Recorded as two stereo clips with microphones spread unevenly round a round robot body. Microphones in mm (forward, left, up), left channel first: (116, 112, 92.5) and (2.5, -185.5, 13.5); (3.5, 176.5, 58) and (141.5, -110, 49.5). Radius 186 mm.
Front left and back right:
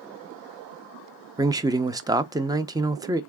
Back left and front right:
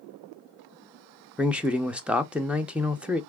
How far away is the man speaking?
About 0.6 m.